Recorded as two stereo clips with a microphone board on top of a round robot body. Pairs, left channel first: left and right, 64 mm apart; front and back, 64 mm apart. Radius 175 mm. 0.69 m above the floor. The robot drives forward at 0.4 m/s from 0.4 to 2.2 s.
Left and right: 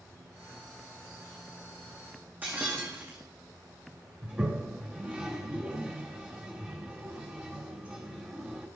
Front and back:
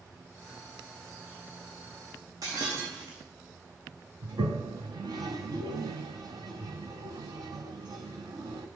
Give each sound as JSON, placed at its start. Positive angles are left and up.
{"t": 2.4, "sound": "breaking glass", "azimuth_deg": -155, "distance_m": 4.0}
{"t": 4.2, "sound": "a toilet flushing", "azimuth_deg": -165, "distance_m": 1.2}